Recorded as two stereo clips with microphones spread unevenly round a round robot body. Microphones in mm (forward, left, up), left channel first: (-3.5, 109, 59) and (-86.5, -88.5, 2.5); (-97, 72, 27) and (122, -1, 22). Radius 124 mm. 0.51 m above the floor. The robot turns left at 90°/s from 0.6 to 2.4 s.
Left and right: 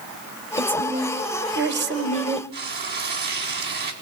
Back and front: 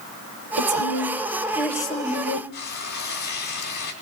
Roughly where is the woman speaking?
Ahead.